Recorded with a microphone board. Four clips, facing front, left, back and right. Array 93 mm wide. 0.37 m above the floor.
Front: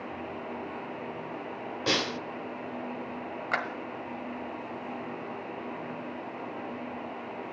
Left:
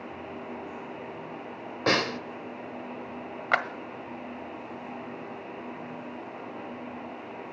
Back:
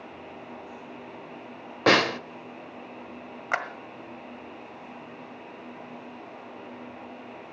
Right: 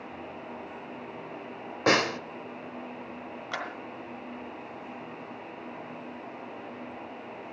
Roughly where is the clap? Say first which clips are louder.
Left 10 dB, back 2 dB; left.